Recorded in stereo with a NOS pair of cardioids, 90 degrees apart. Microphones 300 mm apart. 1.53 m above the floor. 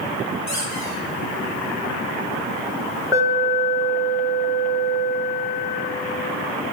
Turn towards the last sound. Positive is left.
turn(degrees=-15)